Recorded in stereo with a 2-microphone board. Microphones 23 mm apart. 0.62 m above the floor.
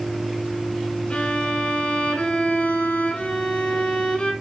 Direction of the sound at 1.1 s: 60° left (ahead or behind).